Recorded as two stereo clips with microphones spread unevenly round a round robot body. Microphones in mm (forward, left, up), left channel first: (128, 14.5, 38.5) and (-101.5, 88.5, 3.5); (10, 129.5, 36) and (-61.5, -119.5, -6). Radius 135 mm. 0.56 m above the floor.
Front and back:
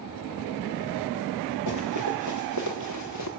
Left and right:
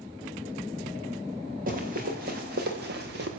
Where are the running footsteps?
45° right, 7.5 m; by 3.3 s 50° right, 5.5 m.